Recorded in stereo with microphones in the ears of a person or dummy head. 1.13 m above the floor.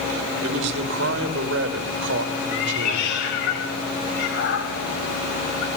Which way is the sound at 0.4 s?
70° right (ahead or behind).